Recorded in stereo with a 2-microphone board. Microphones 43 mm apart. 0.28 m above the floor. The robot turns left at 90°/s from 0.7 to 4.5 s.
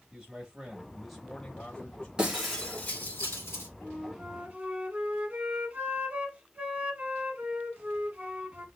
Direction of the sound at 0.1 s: 15° right (ahead or behind).